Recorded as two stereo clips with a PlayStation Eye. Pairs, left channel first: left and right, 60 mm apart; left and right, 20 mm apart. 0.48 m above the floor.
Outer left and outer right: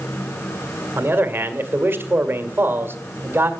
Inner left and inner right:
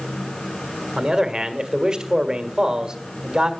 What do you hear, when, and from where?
1.0 s a man speaking: 40° right (ahead or behind), 1.8 m